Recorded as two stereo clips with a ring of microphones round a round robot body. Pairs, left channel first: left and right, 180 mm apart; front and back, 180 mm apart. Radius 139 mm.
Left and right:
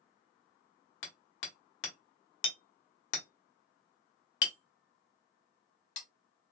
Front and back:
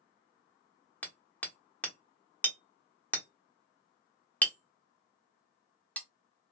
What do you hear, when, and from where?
1.0 s hammering: 80° left, 1.0 m